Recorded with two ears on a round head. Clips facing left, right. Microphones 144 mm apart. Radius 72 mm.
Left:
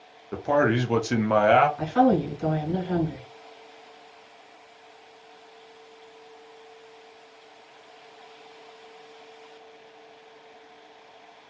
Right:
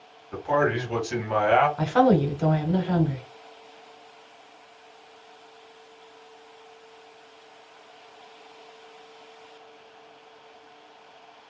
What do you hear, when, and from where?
0.3 s a man speaking: 50° left (ahead or behind), 0.9 m
1.8 s a woman speaking: 65° right (ahead or behind), 1.0 m